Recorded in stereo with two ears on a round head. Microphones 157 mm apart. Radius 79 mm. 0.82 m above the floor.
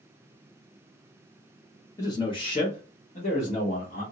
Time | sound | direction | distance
2.0 | a man speaking | 20° left (ahead or behind) | 0.8 m